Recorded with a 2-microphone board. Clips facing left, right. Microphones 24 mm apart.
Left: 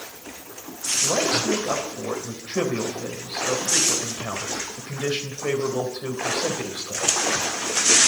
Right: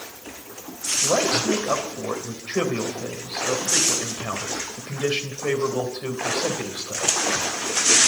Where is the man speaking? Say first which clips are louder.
Right 1 dB; 50° right (ahead or behind), 3 m.